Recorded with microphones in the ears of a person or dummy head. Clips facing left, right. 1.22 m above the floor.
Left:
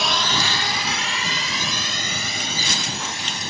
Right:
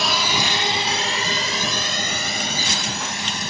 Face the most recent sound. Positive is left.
turn(degrees=-55)  # may be behind; listen again after turning